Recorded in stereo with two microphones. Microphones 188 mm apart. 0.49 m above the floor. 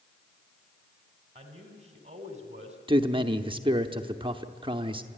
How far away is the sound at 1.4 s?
About 3 m.